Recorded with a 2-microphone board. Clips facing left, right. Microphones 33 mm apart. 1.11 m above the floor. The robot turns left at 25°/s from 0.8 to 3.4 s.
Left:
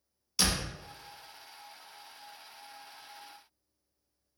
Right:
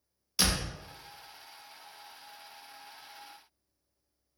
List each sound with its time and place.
0.4 s a door slam: 10° right (ahead or behind), 0.5 m